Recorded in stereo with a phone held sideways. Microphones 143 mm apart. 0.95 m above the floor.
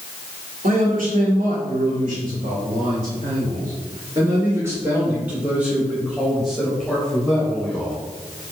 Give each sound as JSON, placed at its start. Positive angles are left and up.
{"t": 0.6, "sound": "a man speaking", "side_deg": -80, "distance_m": 2.5}